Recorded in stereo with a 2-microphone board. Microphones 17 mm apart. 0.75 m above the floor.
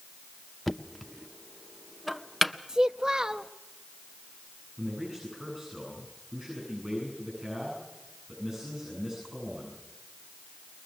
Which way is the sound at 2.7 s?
35° right (ahead or behind).